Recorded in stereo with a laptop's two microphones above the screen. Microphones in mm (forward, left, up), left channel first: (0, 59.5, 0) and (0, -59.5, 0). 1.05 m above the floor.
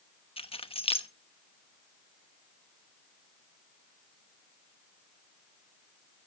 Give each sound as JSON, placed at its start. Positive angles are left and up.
{"t": 0.4, "sound": "keys jangling", "side_deg": 50, "distance_m": 0.9}